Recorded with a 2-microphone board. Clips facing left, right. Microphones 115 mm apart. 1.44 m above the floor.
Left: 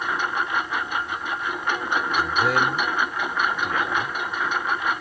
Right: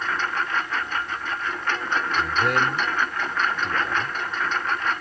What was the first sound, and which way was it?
A lawn mower, 10° left (ahead or behind).